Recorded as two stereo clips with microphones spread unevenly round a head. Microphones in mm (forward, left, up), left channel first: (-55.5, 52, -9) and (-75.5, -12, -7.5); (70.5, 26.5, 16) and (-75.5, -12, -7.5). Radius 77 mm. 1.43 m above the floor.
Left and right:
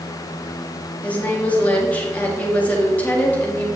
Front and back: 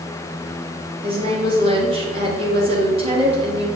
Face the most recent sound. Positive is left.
turn(degrees=140)